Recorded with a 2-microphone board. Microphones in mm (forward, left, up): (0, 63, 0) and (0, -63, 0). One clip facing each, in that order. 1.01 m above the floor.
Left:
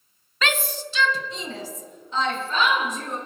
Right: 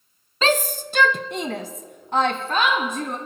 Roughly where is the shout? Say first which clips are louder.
Right 6 dB; right.